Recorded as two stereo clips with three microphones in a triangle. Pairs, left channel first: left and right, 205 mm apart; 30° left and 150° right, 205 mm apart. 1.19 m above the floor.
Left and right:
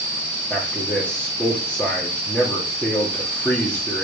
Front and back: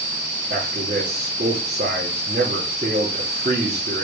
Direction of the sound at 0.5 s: 170° left.